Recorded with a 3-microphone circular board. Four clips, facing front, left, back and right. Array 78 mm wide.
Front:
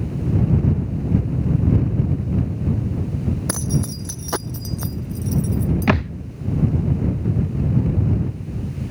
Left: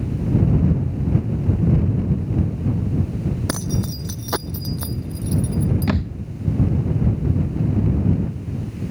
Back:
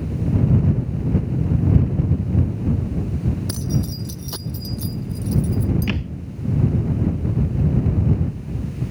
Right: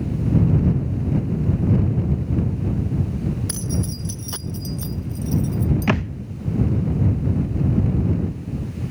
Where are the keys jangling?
50° left; by 5.9 s 30° left.